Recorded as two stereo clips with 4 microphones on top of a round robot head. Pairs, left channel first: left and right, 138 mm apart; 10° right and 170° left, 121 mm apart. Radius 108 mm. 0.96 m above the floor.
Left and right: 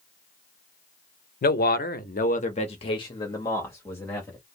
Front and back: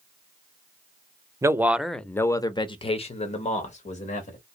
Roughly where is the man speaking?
Left.